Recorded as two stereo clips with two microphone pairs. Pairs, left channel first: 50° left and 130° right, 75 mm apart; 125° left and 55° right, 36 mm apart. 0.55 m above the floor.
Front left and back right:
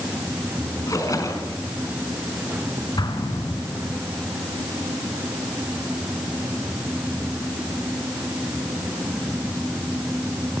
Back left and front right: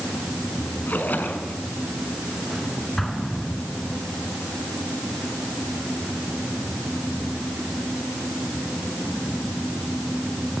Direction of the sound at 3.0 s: 40° left.